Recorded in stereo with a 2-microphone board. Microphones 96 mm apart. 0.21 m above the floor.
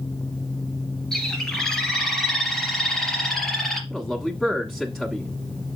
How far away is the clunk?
I don't hear a clunk.